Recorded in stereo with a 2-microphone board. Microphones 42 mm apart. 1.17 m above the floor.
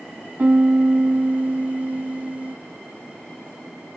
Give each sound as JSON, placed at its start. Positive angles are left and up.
{"t": 0.4, "sound": "a piano", "side_deg": -40, "distance_m": 0.6}